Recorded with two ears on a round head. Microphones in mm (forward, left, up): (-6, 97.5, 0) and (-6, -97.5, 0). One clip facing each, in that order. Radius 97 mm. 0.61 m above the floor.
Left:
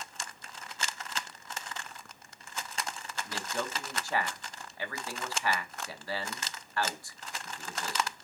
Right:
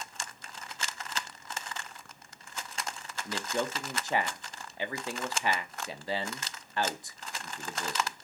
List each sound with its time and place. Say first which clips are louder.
3.2 s a man speaking: right 4 dB; 20° right (ahead or behind), 0.7 m